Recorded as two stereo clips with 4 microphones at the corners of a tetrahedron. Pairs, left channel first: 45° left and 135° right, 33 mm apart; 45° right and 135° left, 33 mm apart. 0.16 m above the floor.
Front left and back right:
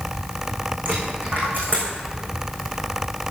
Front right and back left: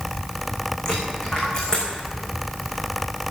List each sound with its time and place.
0.8 s a dropped coin: 110° right, 5 m